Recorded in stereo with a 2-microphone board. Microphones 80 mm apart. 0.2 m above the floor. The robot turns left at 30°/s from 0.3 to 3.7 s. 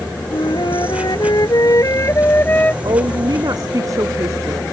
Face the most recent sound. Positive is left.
turn(degrees=-45)  # may be behind; listen again after turning